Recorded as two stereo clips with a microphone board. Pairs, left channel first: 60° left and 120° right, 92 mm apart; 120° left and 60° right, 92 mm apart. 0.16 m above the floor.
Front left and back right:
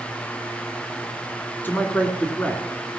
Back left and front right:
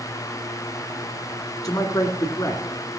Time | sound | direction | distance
1.6 | a man speaking | 120° left | 2 m